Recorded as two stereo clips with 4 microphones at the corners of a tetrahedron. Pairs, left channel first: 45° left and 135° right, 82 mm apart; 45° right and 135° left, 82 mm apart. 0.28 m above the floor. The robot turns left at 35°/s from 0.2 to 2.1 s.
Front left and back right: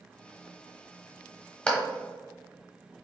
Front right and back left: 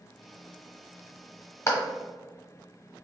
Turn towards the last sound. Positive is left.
turn(degrees=-40)